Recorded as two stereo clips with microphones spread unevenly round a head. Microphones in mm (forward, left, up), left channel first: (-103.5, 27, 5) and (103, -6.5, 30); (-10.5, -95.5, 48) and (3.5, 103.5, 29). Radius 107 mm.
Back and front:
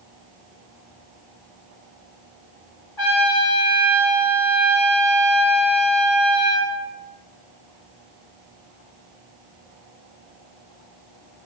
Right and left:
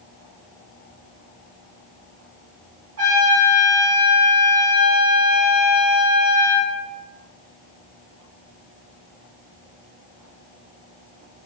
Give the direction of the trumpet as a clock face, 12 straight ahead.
9 o'clock.